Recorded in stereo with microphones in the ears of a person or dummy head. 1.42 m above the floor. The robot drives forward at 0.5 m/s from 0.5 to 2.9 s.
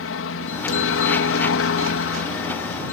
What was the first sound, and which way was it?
A helicopter, 60° left (ahead or behind).